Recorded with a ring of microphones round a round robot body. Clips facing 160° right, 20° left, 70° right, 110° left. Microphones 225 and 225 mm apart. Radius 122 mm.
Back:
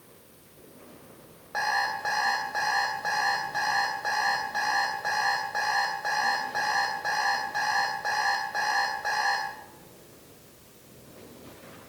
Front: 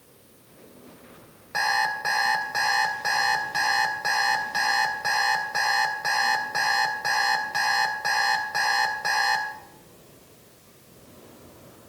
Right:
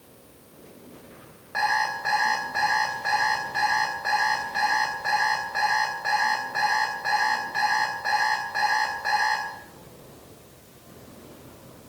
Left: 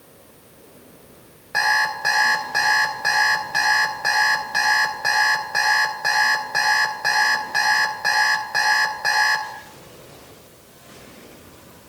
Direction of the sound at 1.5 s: 80° left.